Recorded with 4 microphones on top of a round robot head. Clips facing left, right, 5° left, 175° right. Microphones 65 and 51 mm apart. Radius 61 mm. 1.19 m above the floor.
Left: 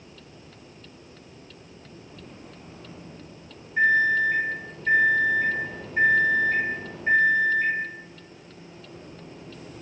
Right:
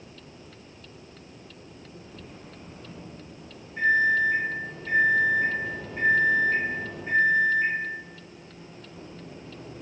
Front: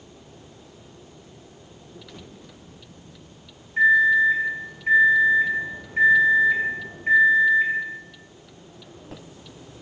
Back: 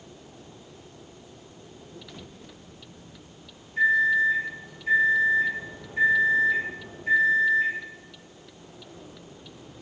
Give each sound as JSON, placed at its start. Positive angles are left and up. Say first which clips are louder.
{"t": 3.8, "sound": "a microwave", "louder": "left 1 dB, front 4 dB", "azimuth_deg": 70, "distance_m": 1.5}